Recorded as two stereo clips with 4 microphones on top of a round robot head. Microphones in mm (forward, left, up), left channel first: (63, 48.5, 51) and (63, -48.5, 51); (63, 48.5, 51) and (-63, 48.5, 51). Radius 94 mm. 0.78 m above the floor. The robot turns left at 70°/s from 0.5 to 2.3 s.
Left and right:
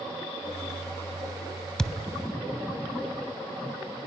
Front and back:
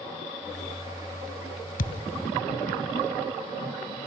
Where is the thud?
5° left, 1.9 m; by 2.0 s 10° right, 1.9 m.